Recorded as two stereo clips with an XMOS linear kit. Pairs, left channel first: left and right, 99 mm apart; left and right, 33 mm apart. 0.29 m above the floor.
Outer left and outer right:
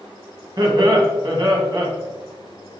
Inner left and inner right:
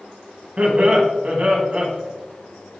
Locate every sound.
0.6 s laughter: 45° right (ahead or behind), 2.5 m